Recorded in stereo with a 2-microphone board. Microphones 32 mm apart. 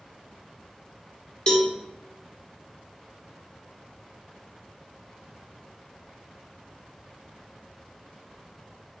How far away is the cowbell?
About 1.3 m.